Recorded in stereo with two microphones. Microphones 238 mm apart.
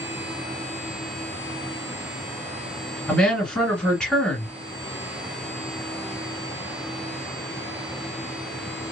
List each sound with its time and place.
3.1 s a woman speaking: 5° left (ahead or behind), 1.8 m